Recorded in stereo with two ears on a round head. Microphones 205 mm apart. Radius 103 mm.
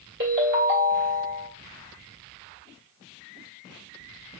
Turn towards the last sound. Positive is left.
turn(degrees=-45)  # may be behind; listen again after turning